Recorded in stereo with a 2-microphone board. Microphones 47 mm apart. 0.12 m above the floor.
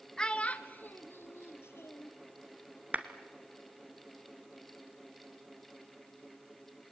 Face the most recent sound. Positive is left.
turn(degrees=-30)  # may be behind; listen again after turning